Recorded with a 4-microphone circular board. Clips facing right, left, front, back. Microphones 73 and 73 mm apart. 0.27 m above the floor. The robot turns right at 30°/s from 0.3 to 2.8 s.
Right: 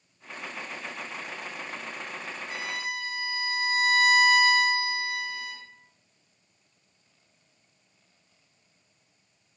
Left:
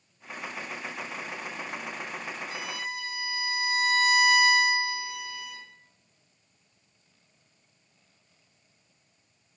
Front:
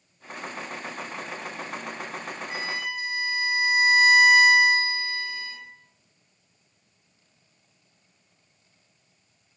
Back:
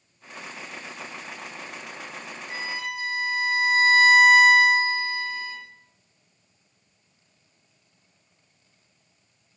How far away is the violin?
About 1.9 m.